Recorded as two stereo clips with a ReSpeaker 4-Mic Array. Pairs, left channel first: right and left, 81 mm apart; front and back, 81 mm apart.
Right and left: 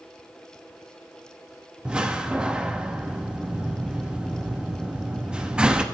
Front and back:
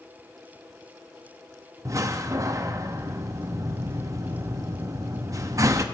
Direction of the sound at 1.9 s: 165° left.